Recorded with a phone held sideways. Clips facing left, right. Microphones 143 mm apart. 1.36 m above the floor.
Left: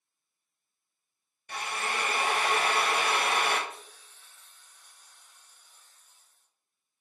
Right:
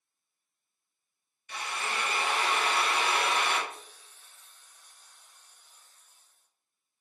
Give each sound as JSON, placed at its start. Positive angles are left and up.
{"t": 1.5, "sound": "a drill", "side_deg": 55, "distance_m": 0.8}
{"t": 3.7, "sound": "a hiss", "side_deg": -40, "distance_m": 1.2}